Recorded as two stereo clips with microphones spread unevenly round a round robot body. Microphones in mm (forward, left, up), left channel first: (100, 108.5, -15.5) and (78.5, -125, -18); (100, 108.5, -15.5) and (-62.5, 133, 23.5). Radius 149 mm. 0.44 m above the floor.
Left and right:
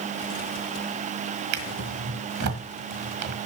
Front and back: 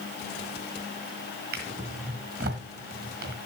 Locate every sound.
1.5 s a drawer: 130° right, 1.3 m